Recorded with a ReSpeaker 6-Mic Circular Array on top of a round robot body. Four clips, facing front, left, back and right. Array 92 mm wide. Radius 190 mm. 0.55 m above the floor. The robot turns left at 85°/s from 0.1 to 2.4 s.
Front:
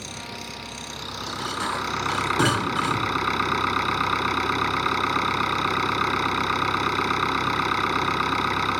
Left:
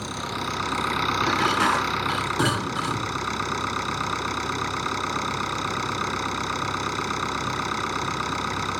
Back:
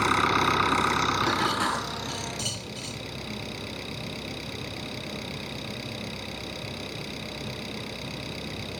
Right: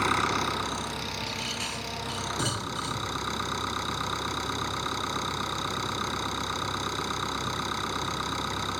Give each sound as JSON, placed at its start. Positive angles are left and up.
{"t": 0.0, "sound": "an engine running", "azimuth_deg": -150}
{"t": 1.2, "sound": "dishes clattering", "azimuth_deg": 135}